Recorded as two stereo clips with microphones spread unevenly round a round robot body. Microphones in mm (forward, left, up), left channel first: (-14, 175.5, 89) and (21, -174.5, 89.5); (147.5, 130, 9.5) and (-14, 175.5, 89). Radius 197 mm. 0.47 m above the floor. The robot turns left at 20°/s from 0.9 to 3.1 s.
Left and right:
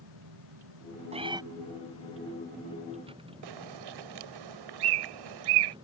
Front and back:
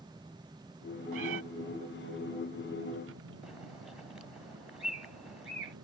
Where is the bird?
105° right.